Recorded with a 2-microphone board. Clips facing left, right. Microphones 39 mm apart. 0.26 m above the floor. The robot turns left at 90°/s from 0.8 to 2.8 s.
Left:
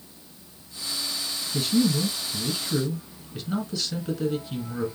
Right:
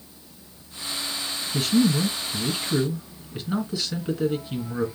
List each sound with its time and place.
1.5 s a man speaking: 45° right, 2.5 m; by 4.8 s 160° right, 2.5 m